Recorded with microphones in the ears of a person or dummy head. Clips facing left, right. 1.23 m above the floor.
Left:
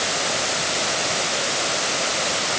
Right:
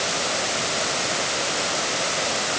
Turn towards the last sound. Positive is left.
No sound to turn to.